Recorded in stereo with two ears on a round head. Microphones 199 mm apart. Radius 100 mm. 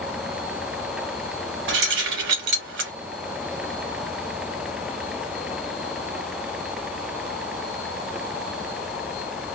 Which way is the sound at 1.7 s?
55° right (ahead or behind).